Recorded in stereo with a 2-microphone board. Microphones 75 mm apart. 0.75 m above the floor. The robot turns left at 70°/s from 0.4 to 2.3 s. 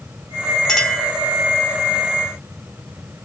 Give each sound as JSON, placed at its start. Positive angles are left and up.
{"t": 0.7, "sound": "a clink", "azimuth_deg": 10, "distance_m": 0.7}